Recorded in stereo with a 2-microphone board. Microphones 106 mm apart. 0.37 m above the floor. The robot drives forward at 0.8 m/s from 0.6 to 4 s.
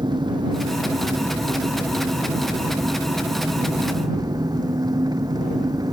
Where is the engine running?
45° right (ahead or behind); by 5.9 s 35° right (ahead or behind).